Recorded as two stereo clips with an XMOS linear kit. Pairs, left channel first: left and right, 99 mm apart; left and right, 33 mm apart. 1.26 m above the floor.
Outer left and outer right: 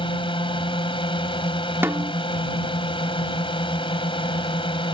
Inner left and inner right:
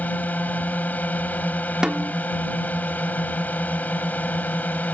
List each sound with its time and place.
0.0 s a drone: 60° left (ahead or behind)
1.8 s a snare drum: 25° right (ahead or behind)